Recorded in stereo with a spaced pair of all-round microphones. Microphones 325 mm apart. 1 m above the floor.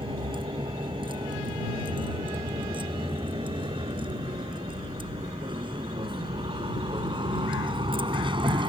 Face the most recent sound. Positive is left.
turn(degrees=-15)  # may be behind; listen again after turning